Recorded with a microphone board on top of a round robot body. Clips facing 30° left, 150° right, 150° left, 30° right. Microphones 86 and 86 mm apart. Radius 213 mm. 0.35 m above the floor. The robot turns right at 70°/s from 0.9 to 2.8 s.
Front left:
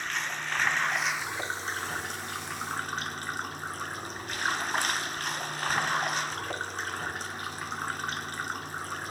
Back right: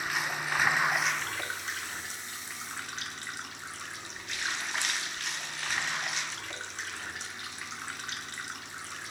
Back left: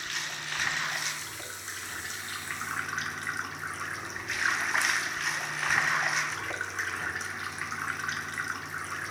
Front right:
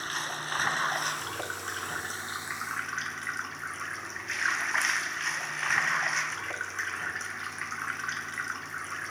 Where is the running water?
70° right, 1.1 m; by 9.1 s 60° left, 1.1 m.